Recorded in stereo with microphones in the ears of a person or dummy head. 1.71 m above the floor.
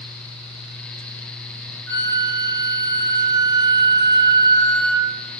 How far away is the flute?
About 0.8 m.